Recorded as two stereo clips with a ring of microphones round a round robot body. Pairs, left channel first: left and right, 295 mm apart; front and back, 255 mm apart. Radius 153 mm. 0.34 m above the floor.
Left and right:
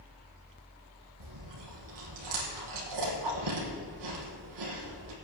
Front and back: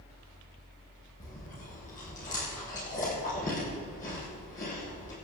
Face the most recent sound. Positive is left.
turn(degrees=-65)